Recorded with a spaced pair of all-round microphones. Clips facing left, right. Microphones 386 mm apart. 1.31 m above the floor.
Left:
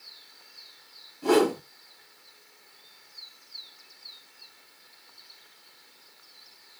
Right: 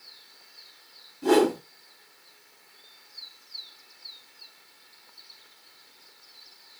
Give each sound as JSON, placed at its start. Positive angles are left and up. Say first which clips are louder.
{"t": 1.2, "sound": "a whoosh", "louder": "right 1 dB", "side_deg": -30, "distance_m": 2.0}